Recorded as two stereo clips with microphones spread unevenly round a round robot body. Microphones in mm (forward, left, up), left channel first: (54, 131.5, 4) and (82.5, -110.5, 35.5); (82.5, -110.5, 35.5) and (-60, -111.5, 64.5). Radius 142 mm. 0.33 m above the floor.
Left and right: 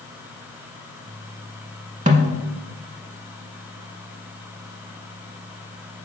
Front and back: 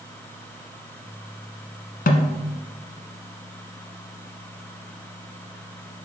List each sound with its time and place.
2.1 s a snare drum: 20° right, 1.0 m